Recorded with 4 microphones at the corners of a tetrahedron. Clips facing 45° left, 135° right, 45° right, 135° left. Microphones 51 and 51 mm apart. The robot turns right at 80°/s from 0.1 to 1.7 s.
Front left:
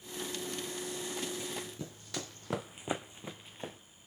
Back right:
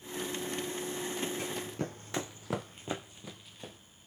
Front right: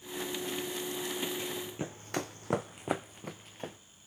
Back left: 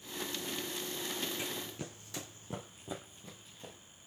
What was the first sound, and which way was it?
Running footsteps, 155° right.